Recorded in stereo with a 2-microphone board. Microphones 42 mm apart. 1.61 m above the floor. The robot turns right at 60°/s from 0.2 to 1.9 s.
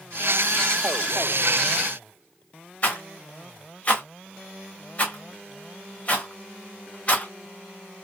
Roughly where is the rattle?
Left.